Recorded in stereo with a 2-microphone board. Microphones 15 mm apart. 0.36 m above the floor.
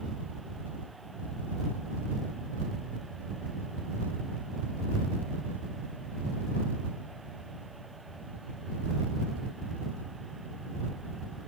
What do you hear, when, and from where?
Only background noise.